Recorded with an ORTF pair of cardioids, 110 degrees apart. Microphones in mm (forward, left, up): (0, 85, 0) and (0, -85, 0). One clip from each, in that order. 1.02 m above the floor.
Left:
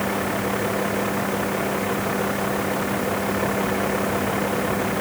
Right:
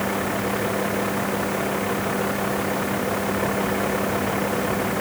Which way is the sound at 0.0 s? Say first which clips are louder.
Even; straight ahead.